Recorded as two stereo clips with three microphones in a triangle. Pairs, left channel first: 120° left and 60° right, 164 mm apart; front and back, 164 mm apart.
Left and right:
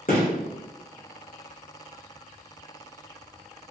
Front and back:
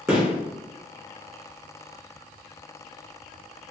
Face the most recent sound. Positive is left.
turn(degrees=110)